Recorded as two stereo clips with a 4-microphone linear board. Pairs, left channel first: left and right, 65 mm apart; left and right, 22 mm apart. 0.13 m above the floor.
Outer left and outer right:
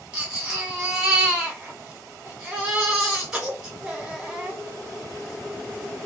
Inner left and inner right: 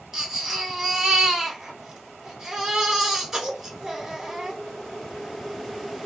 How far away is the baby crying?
About 1.1 m.